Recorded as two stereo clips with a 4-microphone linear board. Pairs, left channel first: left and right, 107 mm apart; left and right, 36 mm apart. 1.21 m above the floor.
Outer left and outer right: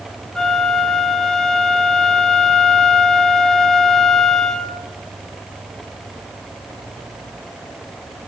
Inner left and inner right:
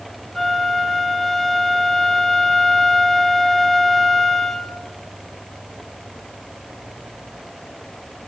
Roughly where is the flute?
Centre.